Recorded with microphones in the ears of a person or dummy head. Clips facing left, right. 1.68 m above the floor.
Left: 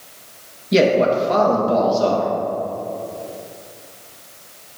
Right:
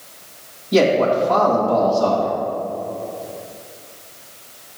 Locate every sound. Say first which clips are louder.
0.7 s a man speaking: even; 35° left (ahead or behind), 2.5 m